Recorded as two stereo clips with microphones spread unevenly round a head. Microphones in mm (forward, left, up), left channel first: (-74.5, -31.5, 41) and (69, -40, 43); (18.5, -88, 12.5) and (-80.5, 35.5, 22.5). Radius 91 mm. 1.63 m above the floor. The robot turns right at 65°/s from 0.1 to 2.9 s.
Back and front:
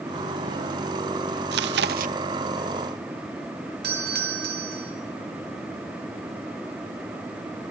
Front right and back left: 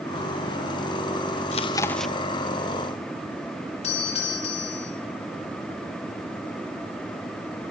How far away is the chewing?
About 0.6 m.